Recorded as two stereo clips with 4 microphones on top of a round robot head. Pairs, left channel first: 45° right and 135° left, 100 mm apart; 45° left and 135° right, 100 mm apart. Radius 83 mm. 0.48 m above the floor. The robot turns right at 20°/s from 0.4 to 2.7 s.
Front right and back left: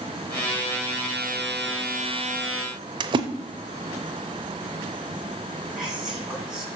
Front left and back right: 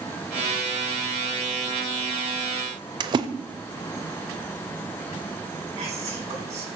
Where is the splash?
Straight behind, 0.7 m.